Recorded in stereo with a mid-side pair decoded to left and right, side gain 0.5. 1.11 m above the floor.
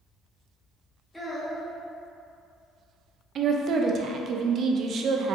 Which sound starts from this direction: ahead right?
A woman speaking, at 3.4 s.